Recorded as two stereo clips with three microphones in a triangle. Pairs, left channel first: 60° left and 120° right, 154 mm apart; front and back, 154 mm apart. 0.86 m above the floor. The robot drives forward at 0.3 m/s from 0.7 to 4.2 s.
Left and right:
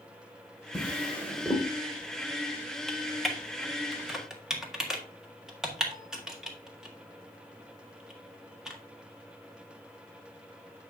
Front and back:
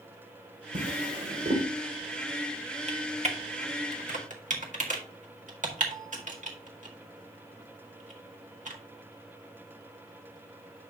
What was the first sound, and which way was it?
A drawer, 140° left.